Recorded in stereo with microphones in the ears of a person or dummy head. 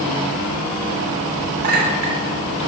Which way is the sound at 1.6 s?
40° right (ahead or behind).